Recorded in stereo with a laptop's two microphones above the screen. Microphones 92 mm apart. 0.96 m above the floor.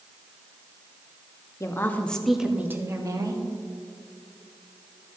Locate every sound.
1.6 s a woman speaking: 30° left (ahead or behind), 1.2 m; by 3.4 s 45° right (ahead or behind), 1.5 m